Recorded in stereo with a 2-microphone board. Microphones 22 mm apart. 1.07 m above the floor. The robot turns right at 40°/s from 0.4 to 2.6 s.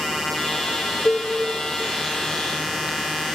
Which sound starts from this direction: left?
A cowbell, at 1.1 s.